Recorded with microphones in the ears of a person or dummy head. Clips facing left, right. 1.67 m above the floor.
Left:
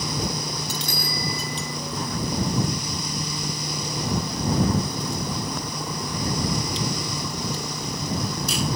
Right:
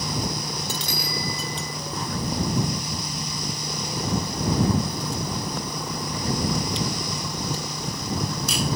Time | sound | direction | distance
0.8 | a bicycle bell | 45° left (ahead or behind) | ?